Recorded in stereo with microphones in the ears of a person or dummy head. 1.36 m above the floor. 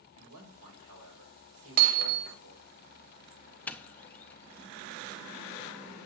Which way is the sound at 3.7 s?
10° left (ahead or behind).